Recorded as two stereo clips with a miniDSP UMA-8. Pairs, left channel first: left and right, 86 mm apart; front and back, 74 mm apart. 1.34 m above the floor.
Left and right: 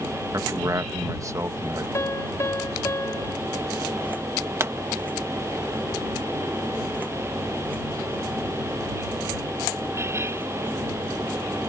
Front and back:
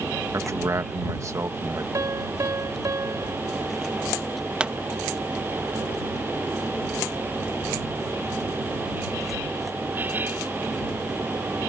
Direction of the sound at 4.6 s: 115° right.